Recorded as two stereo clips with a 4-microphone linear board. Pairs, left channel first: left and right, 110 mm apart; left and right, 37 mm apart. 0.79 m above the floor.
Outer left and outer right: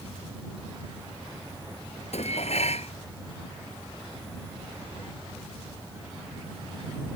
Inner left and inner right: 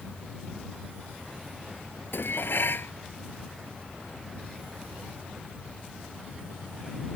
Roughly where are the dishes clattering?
Left.